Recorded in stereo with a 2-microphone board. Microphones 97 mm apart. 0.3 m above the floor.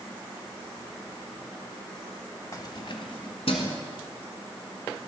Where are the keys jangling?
35° left (ahead or behind), 0.9 m; by 3.8 s 75° left (ahead or behind), 2.5 m.